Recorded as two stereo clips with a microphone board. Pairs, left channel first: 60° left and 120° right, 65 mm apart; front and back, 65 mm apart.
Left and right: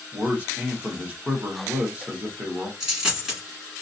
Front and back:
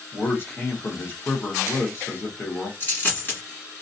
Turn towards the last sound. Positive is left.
turn(degrees=-40)